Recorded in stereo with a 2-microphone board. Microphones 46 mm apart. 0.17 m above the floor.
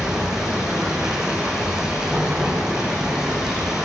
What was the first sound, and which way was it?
Running water, 10° right (ahead or behind).